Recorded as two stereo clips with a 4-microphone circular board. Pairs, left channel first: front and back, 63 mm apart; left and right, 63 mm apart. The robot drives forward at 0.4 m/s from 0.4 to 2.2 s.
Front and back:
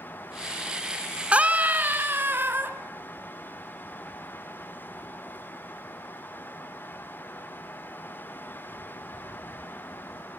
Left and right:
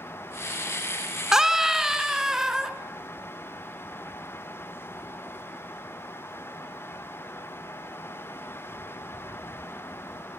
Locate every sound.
1.3 s a scream: 160° right, 1.1 m; by 2.7 s 170° right, 1.2 m